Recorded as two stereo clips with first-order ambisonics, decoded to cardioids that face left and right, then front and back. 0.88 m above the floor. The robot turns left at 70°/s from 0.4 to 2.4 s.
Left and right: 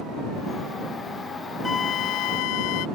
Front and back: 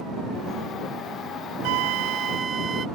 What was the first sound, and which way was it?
A flute, 165° left.